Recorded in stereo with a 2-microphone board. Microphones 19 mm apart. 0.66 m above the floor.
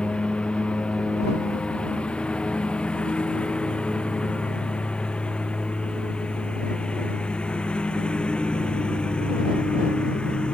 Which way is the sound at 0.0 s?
65° left (ahead or behind).